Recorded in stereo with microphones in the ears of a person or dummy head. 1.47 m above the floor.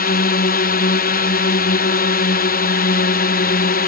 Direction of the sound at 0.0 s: 35° left (ahead or behind).